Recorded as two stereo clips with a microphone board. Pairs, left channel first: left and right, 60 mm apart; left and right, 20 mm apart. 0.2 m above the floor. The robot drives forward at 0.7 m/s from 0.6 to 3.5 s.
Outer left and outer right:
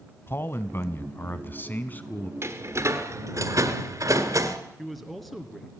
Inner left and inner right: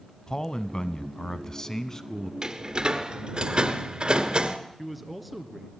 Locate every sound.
0.3 s a man speaking: 40° left (ahead or behind), 1.2 m; by 2.3 s 25° left (ahead or behind), 1.7 m
2.4 s a door slam: 45° right (ahead or behind), 2 m; by 4.6 s 60° right (ahead or behind), 1.7 m
4.8 s a man speaking: centre (ahead or behind), 2.5 m